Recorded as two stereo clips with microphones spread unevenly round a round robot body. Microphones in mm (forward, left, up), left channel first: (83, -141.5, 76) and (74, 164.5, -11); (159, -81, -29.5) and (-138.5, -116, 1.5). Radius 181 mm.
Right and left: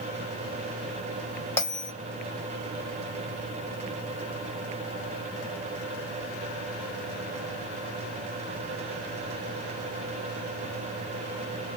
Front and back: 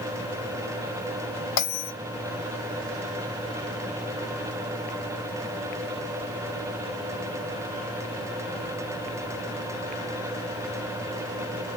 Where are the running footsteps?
No running footsteps in this recording.